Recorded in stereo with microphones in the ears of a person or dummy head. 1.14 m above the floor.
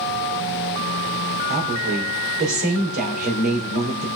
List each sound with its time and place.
1.5 s a woman speaking: 50° right (ahead or behind), 3 m